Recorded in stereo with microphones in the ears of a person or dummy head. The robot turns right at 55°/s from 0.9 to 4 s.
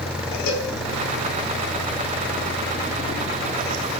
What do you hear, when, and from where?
0.5 s a cowbell: 65° left (ahead or behind), 1.8 m